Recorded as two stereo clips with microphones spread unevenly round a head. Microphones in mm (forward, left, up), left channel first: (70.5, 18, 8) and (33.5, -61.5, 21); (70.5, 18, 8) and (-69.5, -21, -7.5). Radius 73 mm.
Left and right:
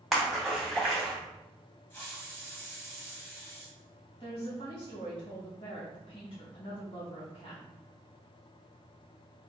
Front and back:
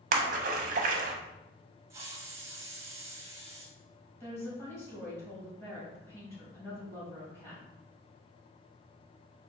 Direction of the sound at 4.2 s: 90° left.